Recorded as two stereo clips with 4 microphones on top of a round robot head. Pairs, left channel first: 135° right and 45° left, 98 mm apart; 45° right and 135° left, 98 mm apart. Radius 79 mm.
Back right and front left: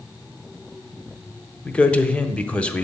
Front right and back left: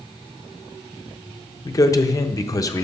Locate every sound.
1.6 s a man speaking: 65° right, 1.0 m